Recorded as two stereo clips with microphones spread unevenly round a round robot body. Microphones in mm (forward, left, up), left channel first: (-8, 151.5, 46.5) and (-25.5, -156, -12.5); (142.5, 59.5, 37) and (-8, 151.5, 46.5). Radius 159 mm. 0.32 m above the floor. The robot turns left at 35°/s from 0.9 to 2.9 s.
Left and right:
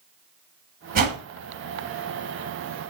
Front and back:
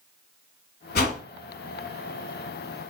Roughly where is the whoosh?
Ahead right.